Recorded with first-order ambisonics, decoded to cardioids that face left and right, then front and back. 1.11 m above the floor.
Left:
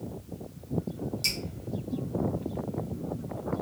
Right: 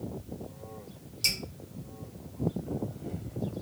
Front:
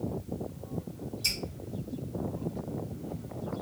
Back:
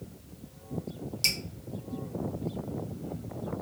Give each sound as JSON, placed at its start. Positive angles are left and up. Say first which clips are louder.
{"t": 1.2, "sound": "dripping", "louder": "right 2 dB, back 3 dB", "azimuth_deg": -175, "distance_m": 1.3}